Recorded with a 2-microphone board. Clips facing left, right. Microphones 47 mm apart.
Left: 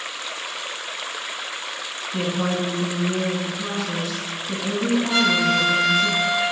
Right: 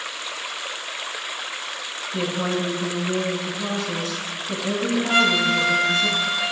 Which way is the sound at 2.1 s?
5° left (ahead or behind).